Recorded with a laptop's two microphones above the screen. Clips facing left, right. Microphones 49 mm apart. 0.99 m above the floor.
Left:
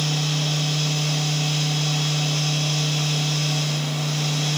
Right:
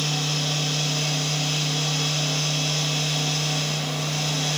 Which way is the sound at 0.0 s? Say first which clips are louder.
Left 2 dB; 60° right (ahead or behind).